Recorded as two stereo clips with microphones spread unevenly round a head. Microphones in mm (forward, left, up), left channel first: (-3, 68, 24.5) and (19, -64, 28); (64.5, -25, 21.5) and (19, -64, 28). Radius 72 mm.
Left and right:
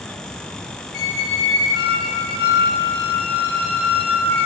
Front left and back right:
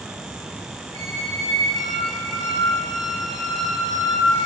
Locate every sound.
0.9 s a squeak: 115° left, 1.6 m